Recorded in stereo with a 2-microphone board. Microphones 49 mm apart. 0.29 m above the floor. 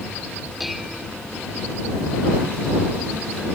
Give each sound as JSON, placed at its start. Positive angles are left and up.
{"t": 0.6, "sound": "dishes clattering", "side_deg": 0}